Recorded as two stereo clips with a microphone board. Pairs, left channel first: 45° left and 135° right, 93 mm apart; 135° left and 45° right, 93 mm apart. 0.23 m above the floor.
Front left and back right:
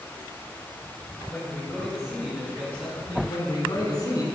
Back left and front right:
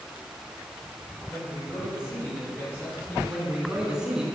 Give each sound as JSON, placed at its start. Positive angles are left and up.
{"t": 1.3, "sound": "a man speaking", "azimuth_deg": 105, "distance_m": 1.5}
{"t": 3.3, "sound": "a man speaking", "azimuth_deg": 35, "distance_m": 1.5}